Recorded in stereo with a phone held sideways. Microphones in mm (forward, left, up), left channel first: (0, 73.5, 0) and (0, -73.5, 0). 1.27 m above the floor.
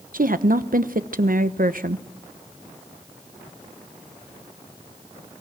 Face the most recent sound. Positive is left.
turn(degrees=-70)  # may be behind; listen again after turning